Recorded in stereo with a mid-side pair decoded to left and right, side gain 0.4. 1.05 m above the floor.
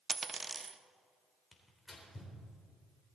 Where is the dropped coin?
35° right, 0.9 m.